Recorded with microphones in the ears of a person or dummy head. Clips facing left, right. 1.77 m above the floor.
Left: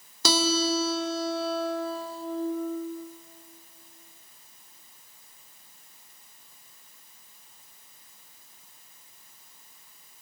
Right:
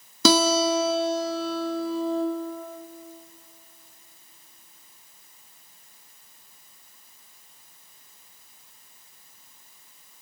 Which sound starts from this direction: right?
A guitar, at 0.2 s.